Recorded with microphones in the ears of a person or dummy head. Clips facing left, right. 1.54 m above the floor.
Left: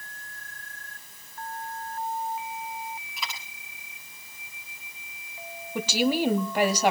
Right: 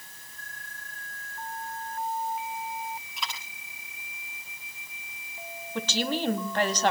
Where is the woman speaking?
10° left (ahead or behind), 1.4 m.